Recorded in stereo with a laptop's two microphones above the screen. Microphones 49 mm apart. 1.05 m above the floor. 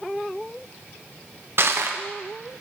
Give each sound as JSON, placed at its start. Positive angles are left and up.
{"t": 1.6, "sound": "crushing", "side_deg": -55, "distance_m": 0.6}